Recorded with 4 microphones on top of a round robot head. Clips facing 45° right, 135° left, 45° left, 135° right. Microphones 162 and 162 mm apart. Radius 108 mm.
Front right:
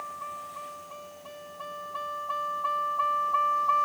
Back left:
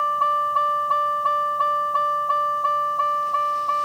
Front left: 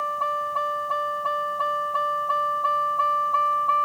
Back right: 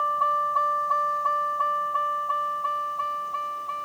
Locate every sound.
0.0 s a vehicle: 120° left; by 3.9 s 80° left